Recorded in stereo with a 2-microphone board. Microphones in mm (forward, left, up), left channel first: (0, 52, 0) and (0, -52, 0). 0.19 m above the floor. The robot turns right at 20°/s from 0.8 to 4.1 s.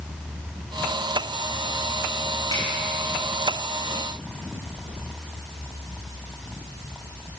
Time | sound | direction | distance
2.5 | a snare drum | 55° left (ahead or behind) | 7.5 m